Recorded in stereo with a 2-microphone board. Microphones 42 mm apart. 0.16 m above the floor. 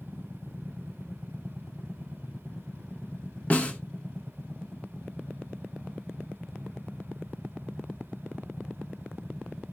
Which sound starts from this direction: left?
A snare drum, at 3.5 s.